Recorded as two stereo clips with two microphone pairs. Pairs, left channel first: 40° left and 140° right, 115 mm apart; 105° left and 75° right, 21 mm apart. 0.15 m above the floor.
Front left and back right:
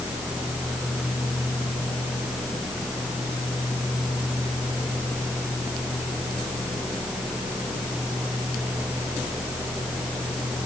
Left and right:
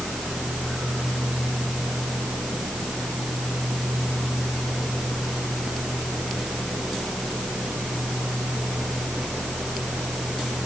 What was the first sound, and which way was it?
Only background noise.